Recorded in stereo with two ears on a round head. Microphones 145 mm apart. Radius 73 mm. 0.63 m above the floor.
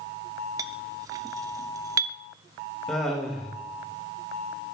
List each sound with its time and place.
0.6 s a clink: 20° right (ahead or behind), 0.7 m
2.9 s laughter: 5° left (ahead or behind), 2 m